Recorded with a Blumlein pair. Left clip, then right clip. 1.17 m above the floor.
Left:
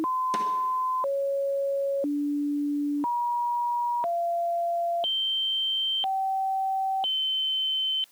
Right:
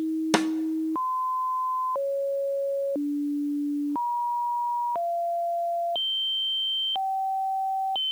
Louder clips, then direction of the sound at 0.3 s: Right 2 dB; 55° right.